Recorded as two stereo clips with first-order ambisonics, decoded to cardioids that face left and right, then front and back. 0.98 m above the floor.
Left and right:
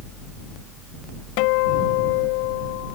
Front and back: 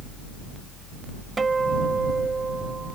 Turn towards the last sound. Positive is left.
turn(degrees=105)